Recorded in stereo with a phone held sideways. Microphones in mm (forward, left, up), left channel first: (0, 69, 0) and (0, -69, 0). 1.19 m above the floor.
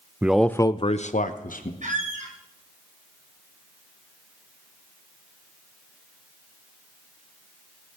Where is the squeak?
65° right (ahead or behind), 2.5 m.